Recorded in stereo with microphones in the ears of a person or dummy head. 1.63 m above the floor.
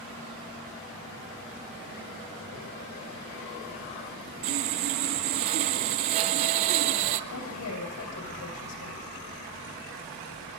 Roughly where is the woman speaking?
Left.